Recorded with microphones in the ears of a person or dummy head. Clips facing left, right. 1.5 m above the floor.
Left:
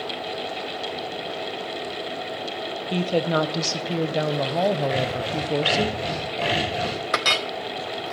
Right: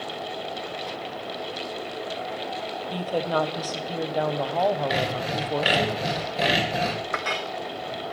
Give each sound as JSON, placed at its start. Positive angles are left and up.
{"t": 2.9, "sound": "a woman speaking", "side_deg": 25, "distance_m": 0.7}
{"t": 4.9, "sound": "sawing", "side_deg": -20, "distance_m": 3.0}
{"t": 7.1, "sound": "a clink", "side_deg": 50, "distance_m": 0.5}